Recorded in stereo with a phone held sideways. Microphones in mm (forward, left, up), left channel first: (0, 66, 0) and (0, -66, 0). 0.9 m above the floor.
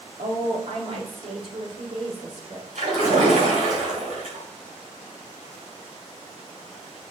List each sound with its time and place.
0.2 s a woman speaking: 70° right (ahead or behind), 1.9 m; by 2.6 s 50° right (ahead or behind), 3 m
2.8 s a splash: 85° right, 3.5 m